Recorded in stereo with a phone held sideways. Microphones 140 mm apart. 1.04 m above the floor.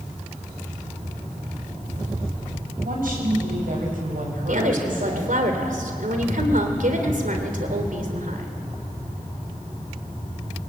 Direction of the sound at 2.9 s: 85° right.